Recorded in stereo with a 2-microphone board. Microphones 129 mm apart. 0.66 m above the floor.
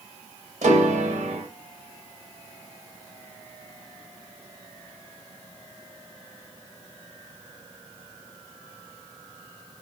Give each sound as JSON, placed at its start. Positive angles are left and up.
{"t": 0.6, "sound": "a piano", "side_deg": -70, "distance_m": 0.8}